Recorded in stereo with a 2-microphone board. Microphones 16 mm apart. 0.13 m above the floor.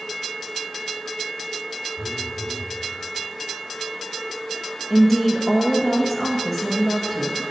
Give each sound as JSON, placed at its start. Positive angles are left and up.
{"t": 2.0, "sound": "a phone buzzing", "side_deg": -25, "distance_m": 1.7}
{"t": 4.9, "sound": "a woman speaking", "side_deg": 5, "distance_m": 1.5}